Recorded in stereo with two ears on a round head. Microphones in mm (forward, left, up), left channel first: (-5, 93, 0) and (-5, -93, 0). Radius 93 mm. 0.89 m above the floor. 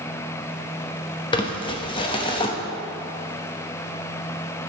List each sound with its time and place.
1.3 s crumpling: 25° left (ahead or behind), 1.0 m